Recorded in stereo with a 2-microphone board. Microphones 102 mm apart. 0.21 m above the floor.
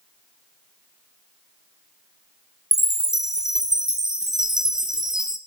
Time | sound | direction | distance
2.7 | a chime | 5° right (ahead or behind) | 0.7 m